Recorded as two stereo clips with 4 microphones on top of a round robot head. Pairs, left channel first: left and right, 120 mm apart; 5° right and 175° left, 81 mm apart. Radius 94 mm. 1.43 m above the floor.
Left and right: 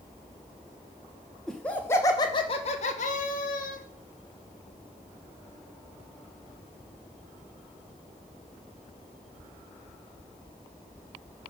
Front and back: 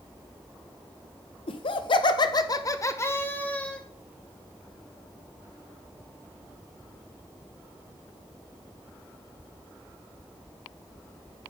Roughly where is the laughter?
Ahead.